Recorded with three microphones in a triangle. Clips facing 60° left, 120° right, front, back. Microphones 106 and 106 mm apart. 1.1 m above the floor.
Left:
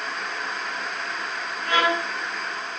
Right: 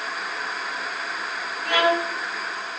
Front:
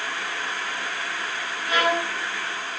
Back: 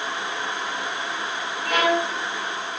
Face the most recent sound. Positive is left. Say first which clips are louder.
# right 2 dB, back 2 dB
turn(degrees=-150)